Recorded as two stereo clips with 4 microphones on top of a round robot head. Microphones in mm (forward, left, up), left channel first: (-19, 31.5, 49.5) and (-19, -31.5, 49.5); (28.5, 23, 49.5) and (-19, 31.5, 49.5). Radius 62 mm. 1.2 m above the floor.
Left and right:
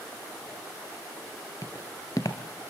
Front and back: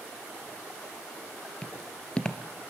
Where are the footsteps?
50° left, 1.3 m.